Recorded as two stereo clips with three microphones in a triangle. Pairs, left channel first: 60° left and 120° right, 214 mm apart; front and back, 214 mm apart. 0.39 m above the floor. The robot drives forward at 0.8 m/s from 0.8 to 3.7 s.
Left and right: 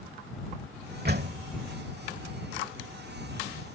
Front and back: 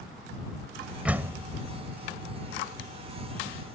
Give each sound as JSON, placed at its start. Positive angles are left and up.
{"t": 1.1, "sound": "a door slam", "azimuth_deg": -95}